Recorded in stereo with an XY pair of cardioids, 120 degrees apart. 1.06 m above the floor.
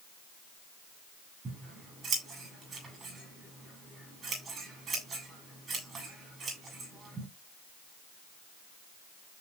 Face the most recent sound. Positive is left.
turn(degrees=-30)